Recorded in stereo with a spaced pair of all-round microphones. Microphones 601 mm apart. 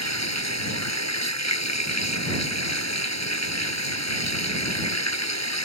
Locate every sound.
0.0 s running water: 25° left (ahead or behind)